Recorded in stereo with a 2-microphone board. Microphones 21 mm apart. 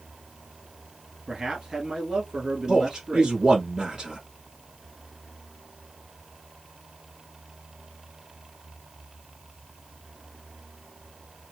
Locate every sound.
1.3 s a man speaking: 35° right (ahead or behind), 1.5 m
2.7 s a man speaking: 30° right (ahead or behind), 1.4 m